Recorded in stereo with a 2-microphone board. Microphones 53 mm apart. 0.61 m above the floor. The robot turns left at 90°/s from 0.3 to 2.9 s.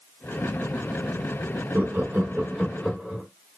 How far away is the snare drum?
No snare drum in this recording.